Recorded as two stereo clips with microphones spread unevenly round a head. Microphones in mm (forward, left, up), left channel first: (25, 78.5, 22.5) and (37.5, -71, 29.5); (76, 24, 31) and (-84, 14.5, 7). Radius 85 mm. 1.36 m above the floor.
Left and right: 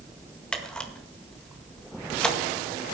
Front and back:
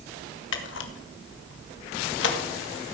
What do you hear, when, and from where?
0.5 s a camera shutter: 10° left, 1.9 m